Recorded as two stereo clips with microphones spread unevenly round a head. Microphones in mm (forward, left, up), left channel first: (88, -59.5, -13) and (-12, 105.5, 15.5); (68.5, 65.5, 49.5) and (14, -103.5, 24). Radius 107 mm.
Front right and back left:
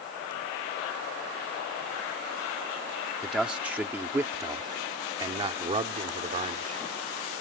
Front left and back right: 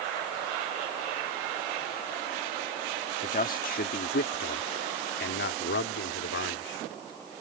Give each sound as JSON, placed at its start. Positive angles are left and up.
{"t": 3.2, "sound": "a man speaking", "azimuth_deg": 30}